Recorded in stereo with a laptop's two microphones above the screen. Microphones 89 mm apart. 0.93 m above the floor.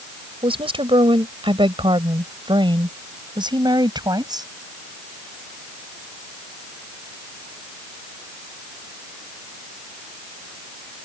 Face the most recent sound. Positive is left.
turn(degrees=-50)  # may be behind; listen again after turning